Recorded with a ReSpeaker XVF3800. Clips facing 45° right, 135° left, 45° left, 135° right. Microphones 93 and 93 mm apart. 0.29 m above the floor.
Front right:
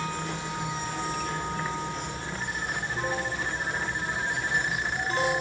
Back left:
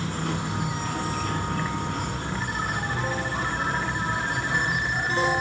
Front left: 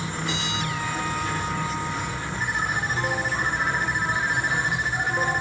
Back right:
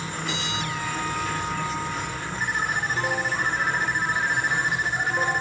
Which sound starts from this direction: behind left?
An insect, at 0.0 s.